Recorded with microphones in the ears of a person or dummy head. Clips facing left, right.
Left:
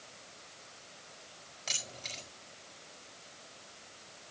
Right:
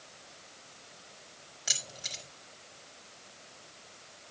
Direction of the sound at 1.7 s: 10° right (ahead or behind).